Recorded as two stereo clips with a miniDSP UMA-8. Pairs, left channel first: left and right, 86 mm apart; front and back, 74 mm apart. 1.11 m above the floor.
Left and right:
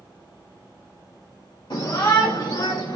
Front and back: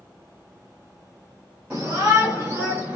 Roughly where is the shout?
Left.